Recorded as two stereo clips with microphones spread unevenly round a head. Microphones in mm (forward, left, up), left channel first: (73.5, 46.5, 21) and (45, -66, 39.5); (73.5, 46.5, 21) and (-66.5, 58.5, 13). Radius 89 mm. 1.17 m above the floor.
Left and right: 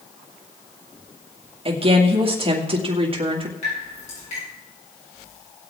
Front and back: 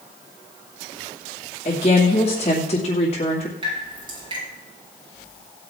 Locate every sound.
1.6 s a woman speaking: 65° right, 2.5 m
3.6 s dripping: 120° left, 8 m